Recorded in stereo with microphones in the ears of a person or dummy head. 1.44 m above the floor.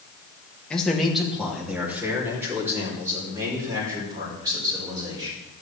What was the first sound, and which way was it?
A man speaking, 5° left (ahead or behind).